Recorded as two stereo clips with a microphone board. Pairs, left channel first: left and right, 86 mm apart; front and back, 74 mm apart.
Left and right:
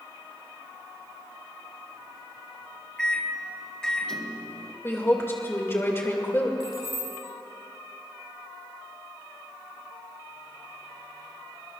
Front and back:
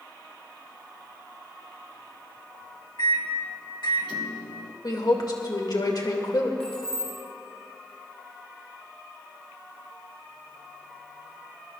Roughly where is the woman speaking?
Ahead left.